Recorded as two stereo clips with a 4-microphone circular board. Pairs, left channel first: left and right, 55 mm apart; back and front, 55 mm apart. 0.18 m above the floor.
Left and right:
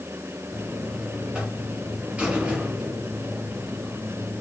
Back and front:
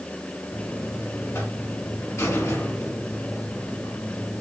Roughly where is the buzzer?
Behind.